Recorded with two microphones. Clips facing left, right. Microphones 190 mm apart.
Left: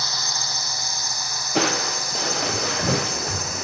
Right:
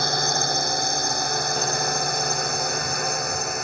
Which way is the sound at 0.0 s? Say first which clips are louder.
Right 9 dB; 55° right (ahead or behind).